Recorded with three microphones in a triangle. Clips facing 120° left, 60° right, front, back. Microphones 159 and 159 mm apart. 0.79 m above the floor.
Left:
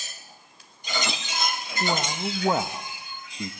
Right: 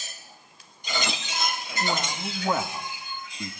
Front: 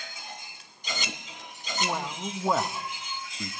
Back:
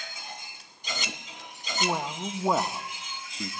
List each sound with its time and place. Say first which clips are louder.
1.8 s a man speaking: left 2 dB, back 2 dB; 115° left, 0.9 m